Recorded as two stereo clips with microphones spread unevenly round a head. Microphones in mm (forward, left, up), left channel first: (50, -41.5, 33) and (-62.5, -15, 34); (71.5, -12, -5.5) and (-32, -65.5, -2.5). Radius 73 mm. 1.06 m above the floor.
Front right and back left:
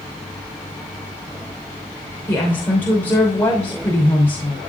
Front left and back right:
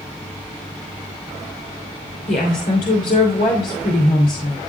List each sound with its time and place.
2.3 s a woman speaking: 60° left, 3 m